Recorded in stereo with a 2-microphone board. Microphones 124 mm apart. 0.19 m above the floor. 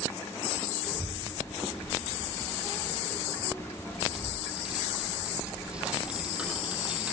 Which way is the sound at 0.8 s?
5° right (ahead or behind).